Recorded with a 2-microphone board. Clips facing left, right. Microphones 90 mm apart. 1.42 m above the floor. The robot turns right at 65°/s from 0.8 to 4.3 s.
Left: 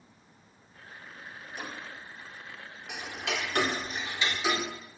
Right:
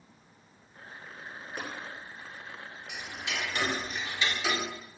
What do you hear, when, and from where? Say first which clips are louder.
1.6 s tapping: right 1 dB; 60° right (ahead or behind), 9 m; by 1.7 s 55° right (ahead or behind), 9 m
2.9 s ticking: left 3 dB; 75° left, 3 m; by 4.6 s 165° left, 3 m